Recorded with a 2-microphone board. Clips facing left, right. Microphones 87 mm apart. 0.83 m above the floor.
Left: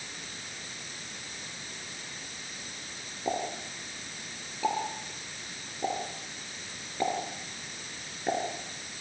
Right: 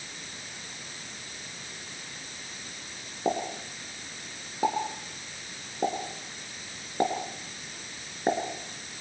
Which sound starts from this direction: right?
A pop, at 3.2 s.